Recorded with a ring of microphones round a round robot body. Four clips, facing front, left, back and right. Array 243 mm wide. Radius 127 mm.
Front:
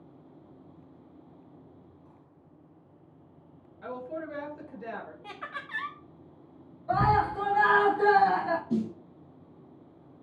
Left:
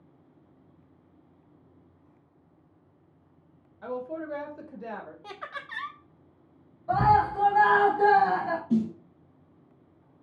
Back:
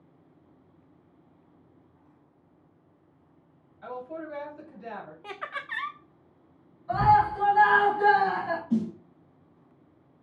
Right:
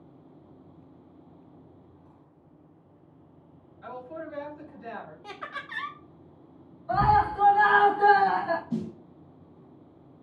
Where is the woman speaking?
70° left, 1.7 m.